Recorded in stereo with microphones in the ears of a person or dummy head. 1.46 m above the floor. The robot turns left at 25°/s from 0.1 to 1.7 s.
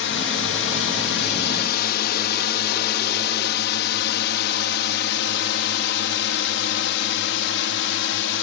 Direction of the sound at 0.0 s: 60° left (ahead or behind).